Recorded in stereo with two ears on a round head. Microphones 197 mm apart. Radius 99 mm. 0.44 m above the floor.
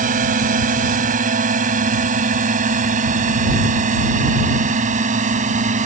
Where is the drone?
40° right (ahead or behind); by 5.9 s 35° right (ahead or behind).